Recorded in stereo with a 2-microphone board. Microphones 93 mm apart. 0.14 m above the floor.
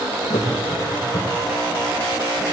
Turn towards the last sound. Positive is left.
turn(degrees=65)  # may be behind; listen again after turning